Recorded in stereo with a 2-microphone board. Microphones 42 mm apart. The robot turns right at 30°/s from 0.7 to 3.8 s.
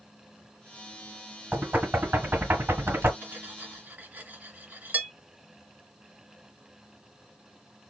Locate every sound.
1.5 s knocking: 40° right (ahead or behind), 3 m; by 3.1 s 75° right (ahead or behind), 3 m
3.2 s cutlery clinking: 60° right (ahead or behind), 2.5 m; by 5.1 s 45° right (ahead or behind), 2.5 m